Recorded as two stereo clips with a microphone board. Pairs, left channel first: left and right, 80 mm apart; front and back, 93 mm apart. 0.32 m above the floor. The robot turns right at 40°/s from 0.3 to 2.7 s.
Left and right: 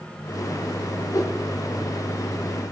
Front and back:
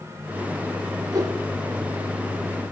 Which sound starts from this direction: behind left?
A whoosh, at 1.1 s.